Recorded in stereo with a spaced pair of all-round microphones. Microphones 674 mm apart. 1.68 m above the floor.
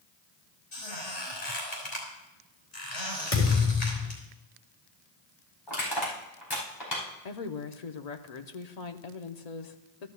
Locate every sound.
0.7 s a squeak: 70° left (ahead or behind), 4.5 m
3.3 s a thud: 60° left (ahead or behind), 4 m
5.7 s crushing: 35° left (ahead or behind), 5 m
7.2 s a woman speaking: 70° left (ahead or behind), 0.9 m